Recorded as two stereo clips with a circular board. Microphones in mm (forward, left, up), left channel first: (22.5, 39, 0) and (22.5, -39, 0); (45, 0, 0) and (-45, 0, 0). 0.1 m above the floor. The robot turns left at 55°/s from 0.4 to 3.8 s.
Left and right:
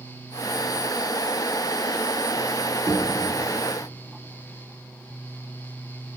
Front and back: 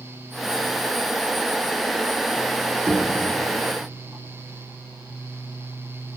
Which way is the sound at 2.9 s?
175° left.